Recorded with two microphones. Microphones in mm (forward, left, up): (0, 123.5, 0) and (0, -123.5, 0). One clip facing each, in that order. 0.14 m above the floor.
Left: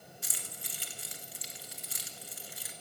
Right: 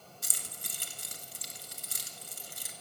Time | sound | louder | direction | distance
0.2 | keys jangling | even | 45° right (ahead or behind) | 1.5 m